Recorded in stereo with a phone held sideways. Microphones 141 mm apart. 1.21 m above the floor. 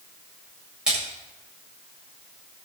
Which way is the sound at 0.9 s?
5° right (ahead or behind).